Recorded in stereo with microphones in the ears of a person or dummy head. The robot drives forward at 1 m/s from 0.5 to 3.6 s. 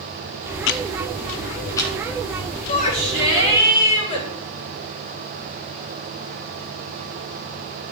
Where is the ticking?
60° left (ahead or behind), 0.5 m; by 1.9 s 15° left (ahead or behind), 1.6 m.